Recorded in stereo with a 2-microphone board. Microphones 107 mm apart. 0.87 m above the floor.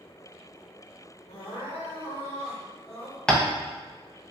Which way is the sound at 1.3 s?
80° left.